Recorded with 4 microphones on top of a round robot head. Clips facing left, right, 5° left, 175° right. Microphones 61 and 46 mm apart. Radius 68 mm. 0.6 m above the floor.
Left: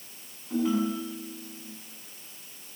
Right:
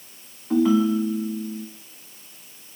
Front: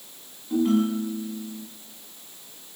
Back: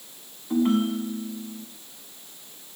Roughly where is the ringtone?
Right.